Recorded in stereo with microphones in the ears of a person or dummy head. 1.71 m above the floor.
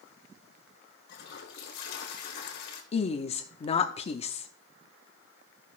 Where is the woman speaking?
40° left (ahead or behind), 0.7 m.